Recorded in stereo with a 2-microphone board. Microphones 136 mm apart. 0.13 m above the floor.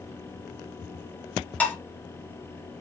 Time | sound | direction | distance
1.6 | dishes clattering | 10° left (ahead or behind) | 1.1 m